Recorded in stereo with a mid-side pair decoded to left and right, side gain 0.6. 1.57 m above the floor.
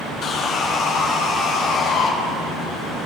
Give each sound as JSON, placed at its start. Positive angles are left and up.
{"t": 0.2, "sound": "sawing", "azimuth_deg": 50, "distance_m": 1.2}